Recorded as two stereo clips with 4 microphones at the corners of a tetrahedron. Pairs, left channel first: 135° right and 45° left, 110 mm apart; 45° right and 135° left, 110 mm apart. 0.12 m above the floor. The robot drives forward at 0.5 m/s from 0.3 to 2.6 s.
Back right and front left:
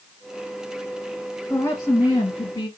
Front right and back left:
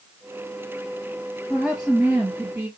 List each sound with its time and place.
1.5 s a woman speaking: 150° right, 1.1 m; by 2.7 s 165° right, 1.3 m